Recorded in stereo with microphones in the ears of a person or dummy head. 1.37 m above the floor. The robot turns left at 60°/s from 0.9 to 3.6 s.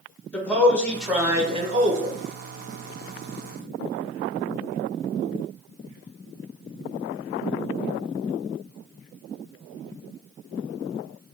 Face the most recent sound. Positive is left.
turn(degrees=-155)